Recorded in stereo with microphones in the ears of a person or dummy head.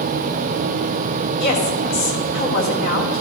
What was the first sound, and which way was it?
A woman speaking, 65° left (ahead or behind).